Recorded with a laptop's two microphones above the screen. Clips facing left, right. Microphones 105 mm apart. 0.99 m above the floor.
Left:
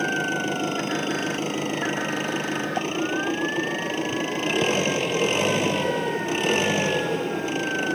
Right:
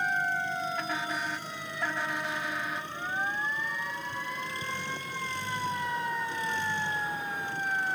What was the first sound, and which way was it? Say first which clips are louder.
An engine running: left 5 dB; 80° left.